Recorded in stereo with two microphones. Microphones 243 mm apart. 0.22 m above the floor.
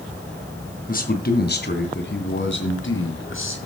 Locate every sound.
0.9 s a man speaking: 35° left (ahead or behind), 1.9 m; by 3.6 s 55° left (ahead or behind), 3.5 m